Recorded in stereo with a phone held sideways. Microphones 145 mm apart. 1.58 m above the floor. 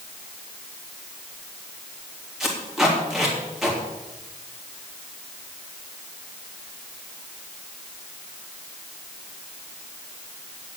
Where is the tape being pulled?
5° right (ahead or behind), 3.5 m.